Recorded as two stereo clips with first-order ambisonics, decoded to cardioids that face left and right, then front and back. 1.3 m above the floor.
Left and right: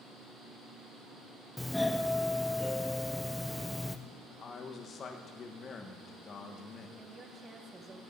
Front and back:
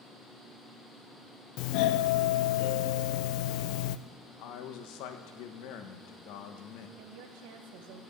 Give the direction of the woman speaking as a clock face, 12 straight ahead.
5 o'clock.